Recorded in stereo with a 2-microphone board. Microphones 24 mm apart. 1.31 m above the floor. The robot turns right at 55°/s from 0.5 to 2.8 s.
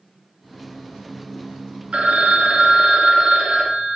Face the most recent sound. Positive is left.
turn(degrees=-40)